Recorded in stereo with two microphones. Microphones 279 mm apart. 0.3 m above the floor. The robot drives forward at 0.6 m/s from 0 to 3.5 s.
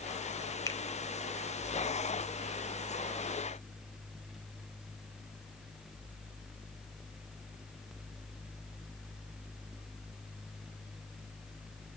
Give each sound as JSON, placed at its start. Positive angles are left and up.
{"t": 0.7, "sound": "a finger snap", "side_deg": 15, "distance_m": 0.8}